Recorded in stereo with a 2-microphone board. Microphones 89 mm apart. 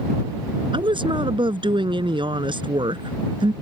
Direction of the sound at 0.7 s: 75° right (ahead or behind).